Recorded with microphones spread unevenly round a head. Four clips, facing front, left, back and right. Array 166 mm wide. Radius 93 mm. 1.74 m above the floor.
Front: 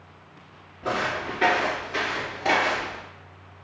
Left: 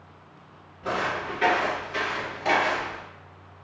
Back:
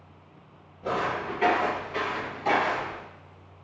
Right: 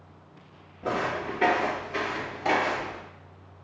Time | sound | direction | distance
0.8 | footsteps | 30° right | 1.7 m